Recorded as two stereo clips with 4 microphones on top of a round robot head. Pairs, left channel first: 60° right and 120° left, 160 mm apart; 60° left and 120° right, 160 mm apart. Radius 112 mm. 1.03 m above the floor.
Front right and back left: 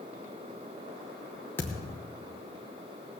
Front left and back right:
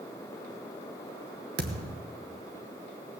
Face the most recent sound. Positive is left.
turn(degrees=-130)